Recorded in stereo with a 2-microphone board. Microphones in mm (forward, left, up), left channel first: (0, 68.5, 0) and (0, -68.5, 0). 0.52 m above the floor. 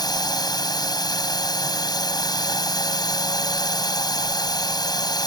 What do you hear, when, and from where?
0.0 s a drone: 30° left (ahead or behind)